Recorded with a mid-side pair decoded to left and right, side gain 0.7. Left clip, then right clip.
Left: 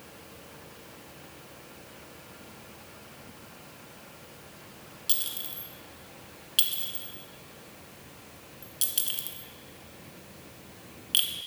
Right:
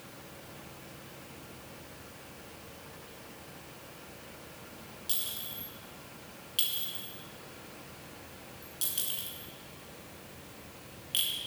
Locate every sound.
5.1 s a clink: 25° left, 1.6 m